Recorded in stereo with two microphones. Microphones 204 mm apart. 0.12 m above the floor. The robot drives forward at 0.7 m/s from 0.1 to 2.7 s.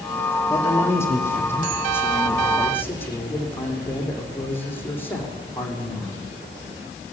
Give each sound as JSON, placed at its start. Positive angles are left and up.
{"t": 0.5, "sound": "a man speaking", "side_deg": 15, "distance_m": 5.0}